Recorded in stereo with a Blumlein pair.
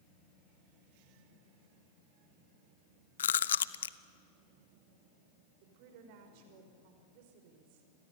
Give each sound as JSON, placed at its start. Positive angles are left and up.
{"t": 3.2, "sound": "chewing", "azimuth_deg": 65, "distance_m": 0.7}
{"t": 5.6, "sound": "a woman speaking", "azimuth_deg": -45, "distance_m": 5.0}